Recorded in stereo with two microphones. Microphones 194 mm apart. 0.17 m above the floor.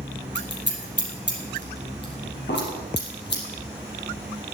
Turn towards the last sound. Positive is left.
turn(degrees=65)  # may be behind; listen again after turning